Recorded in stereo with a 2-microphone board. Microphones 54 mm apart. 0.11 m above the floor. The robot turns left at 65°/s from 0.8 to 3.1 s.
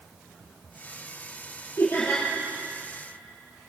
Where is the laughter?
65° left, 3.5 m; by 2.2 s 35° left, 3.5 m.